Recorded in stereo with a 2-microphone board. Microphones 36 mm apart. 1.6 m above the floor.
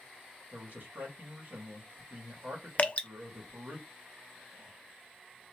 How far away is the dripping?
About 0.6 m.